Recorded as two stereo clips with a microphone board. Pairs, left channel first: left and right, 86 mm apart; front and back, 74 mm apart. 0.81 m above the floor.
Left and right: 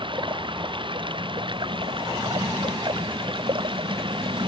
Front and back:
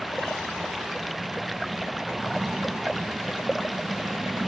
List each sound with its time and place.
0.0 s running water: 90° right